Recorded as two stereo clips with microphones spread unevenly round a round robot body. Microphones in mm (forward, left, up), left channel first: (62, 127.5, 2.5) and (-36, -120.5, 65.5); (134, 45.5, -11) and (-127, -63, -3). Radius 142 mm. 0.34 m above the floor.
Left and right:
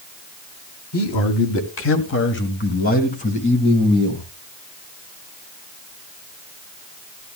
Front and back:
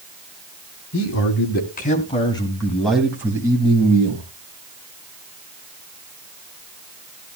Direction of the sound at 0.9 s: 60° left.